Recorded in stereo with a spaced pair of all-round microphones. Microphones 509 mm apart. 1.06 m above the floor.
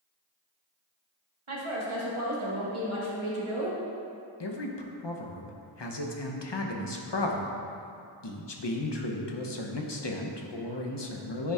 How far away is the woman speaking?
About 1.6 m.